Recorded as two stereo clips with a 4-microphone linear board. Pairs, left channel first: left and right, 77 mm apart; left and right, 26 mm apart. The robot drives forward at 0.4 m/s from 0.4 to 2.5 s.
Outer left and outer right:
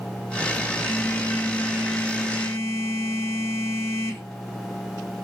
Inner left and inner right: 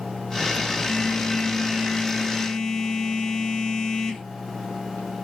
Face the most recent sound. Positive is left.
turn(degrees=25)  # may be behind; listen again after turning